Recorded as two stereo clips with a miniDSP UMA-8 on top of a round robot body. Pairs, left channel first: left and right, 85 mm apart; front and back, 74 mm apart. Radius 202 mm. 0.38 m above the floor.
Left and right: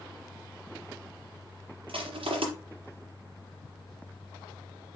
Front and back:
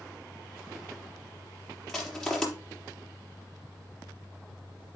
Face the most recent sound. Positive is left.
turn(degrees=-85)